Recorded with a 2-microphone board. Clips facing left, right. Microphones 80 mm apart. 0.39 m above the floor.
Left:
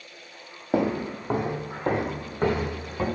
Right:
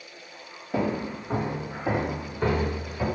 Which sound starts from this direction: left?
Footsteps, at 0.7 s.